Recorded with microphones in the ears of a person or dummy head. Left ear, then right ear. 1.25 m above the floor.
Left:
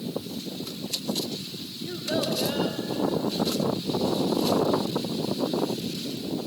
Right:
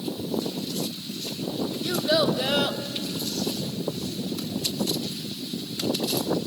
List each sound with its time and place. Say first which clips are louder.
1.8 s a child speaking: right 6 dB; 45° right (ahead or behind), 1.6 m